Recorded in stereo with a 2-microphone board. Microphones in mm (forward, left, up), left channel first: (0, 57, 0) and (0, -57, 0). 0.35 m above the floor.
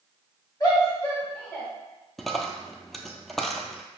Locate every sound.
0.6 s a shout: 30° left (ahead or behind), 1.9 m; by 1.7 s 15° left (ahead or behind), 1.8 m
2.2 s a dropped coin: centre (ahead or behind), 0.5 m